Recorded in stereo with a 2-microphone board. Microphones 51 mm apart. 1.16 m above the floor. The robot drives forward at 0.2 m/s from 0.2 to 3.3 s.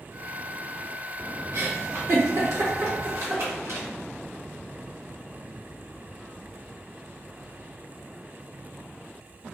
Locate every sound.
1.5 s a giggle: 65° right (ahead or behind), 1.0 m